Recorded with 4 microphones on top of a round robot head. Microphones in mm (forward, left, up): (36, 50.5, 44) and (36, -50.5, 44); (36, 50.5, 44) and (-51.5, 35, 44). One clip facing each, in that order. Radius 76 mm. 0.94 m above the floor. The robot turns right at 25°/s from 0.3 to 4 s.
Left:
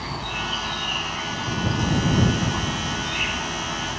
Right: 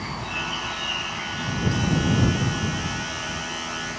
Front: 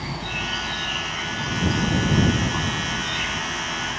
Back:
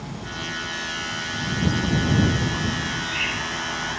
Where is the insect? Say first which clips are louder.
Left 1 dB, front 3 dB; 10° left; by 4.0 s 105° left.